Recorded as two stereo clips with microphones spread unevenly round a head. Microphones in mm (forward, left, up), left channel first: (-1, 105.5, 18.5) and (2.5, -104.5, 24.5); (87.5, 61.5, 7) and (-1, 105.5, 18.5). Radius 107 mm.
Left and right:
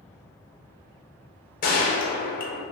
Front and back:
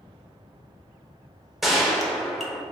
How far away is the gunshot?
About 0.6 m.